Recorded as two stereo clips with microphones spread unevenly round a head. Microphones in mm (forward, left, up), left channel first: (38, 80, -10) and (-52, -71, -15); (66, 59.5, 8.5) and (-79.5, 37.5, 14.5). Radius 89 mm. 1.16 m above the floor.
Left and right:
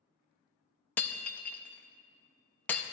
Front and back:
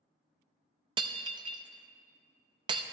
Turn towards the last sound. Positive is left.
turn(degrees=135)